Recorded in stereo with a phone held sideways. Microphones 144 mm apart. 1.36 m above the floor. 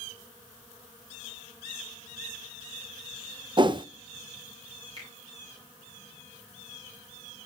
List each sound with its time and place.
3.6 s a whoosh: 35° right (ahead or behind), 0.6 m
5.0 s a finger snap: 40° right (ahead or behind), 8.5 m